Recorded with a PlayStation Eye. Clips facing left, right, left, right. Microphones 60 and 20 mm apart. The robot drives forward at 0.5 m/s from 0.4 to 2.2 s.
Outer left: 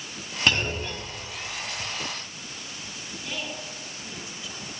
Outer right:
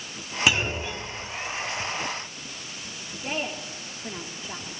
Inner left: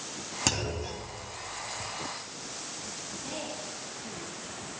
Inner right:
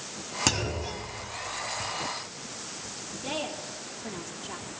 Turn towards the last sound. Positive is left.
turn(degrees=-40)  # may be behind; listen again after turning